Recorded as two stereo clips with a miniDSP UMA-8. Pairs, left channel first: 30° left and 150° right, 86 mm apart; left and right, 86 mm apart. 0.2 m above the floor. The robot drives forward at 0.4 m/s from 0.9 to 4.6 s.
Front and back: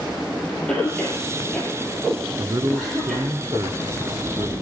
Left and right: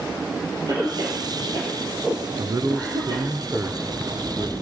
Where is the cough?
50° right, 5 m; by 3.3 s 55° right, 4.5 m.